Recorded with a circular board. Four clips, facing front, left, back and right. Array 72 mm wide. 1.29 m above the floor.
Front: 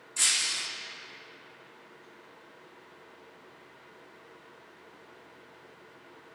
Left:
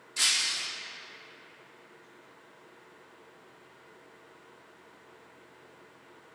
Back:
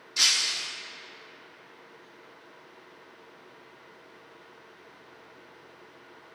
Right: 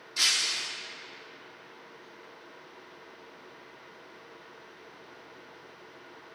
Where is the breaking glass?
165° right, 0.8 m.